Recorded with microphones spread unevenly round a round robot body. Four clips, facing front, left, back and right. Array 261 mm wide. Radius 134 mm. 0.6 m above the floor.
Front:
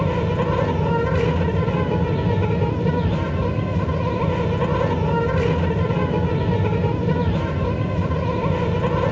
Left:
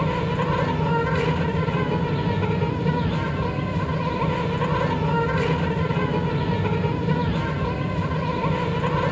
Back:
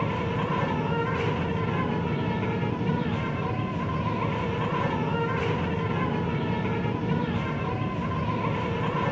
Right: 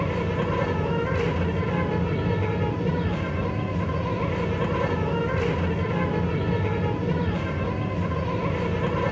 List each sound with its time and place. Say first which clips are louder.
0.0 s an insect: left 2 dB, front 7 dB; 5° left, 0.9 m